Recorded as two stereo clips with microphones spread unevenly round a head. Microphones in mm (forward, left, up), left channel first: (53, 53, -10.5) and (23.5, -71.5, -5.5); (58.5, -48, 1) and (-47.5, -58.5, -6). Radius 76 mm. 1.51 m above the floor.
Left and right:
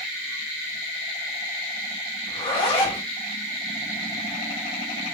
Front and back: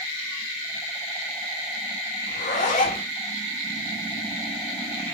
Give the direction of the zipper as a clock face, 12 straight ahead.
11 o'clock.